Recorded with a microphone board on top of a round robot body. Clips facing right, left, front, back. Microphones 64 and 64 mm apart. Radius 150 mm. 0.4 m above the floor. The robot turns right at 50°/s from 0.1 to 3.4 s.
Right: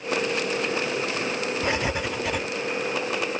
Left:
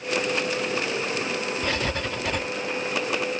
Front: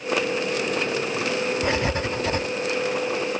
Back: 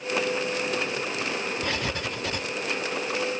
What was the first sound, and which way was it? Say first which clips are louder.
Writing: right 1 dB, front 6 dB; 45° right.